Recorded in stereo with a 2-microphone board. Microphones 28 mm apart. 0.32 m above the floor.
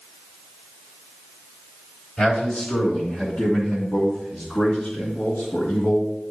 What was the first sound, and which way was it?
A man speaking, 40° left (ahead or behind).